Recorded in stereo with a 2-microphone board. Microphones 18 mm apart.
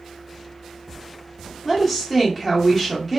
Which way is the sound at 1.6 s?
5° right (ahead or behind).